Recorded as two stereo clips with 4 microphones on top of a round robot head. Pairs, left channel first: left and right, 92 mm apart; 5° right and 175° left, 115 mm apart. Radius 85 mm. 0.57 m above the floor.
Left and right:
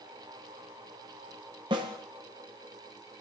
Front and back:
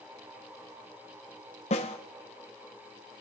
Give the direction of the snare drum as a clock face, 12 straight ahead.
1 o'clock.